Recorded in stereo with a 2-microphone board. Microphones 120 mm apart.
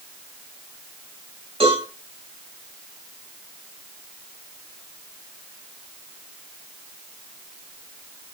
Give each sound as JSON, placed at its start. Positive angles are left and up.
{"t": 1.6, "sound": "a cowbell", "side_deg": -55, "distance_m": 7.5}